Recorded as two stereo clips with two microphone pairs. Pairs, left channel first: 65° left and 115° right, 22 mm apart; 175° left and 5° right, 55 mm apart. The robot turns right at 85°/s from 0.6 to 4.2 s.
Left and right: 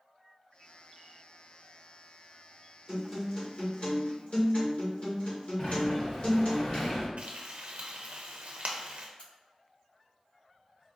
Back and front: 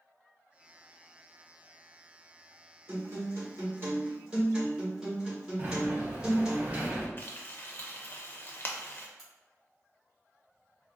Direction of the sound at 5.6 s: 30° left.